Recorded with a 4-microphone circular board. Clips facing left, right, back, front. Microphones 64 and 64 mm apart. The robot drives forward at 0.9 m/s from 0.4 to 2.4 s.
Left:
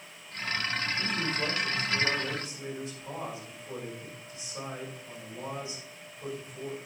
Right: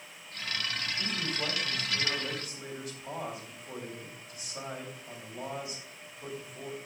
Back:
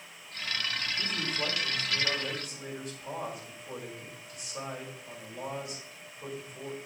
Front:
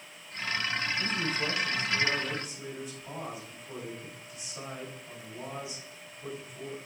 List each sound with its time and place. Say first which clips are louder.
1.0 s a man speaking: left 3 dB, front 2 dB; 150° left, 4.5 m; by 6.8 s 160° left, 5.5 m